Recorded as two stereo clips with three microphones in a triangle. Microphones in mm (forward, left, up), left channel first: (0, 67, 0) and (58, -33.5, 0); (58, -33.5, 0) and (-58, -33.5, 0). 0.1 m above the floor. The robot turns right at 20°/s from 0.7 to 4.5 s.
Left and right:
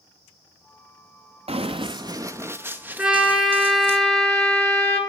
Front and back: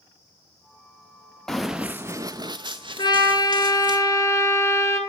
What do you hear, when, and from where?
1.5 s running footsteps: 85° right, 0.5 m; by 4.0 s 130° right, 1.2 m
3.0 s a trumpet: 10° left, 1.4 m; by 5.0 s 40° left, 1.4 m